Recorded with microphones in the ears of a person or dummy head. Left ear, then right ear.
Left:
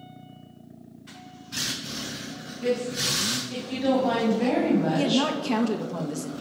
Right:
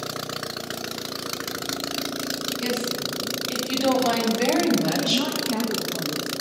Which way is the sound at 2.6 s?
85° right.